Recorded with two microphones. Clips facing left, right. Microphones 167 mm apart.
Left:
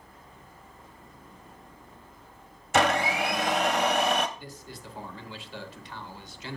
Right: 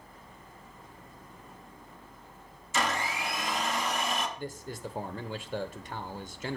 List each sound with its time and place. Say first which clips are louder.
2.7 s a blender: left 8 dB; 70° left (ahead or behind), 0.8 m
4.4 s a man speaking: right 6 dB; 50° right (ahead or behind), 1.0 m